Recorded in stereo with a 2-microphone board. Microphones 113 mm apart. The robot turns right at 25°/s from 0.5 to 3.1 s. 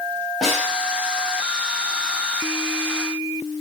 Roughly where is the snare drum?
Centre.